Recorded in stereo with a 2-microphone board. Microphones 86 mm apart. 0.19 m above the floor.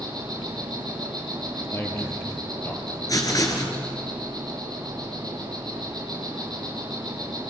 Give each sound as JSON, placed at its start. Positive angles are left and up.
{"t": 0.0, "sound": "an insect", "side_deg": -50, "distance_m": 6.0}
{"t": 1.7, "sound": "a man speaking", "side_deg": 30, "distance_m": 5.0}
{"t": 3.1, "sound": "writing", "side_deg": 45, "distance_m": 3.0}